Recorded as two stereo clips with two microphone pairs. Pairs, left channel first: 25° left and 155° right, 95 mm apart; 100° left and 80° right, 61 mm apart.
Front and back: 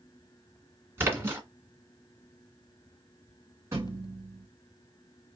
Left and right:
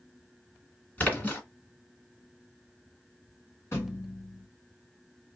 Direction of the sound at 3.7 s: 145° left.